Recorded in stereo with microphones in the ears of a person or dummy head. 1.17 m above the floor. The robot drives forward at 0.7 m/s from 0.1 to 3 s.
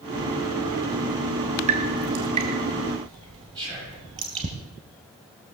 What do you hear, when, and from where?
1.7 s dripping: 40° right (ahead or behind), 2 m; by 4.5 s 30° right (ahead or behind), 3 m
3.5 s whispering: 25° right (ahead or behind), 7.5 m